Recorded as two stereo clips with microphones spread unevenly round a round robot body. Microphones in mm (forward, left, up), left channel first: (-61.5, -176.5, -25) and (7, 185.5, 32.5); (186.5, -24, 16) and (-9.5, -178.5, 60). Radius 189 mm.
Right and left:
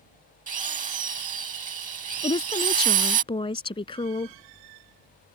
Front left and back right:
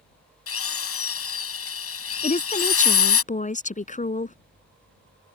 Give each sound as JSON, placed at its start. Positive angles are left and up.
{"t": 0.5, "sound": "a drill", "azimuth_deg": 10}
{"t": 2.2, "sound": "a woman speaking", "azimuth_deg": -20}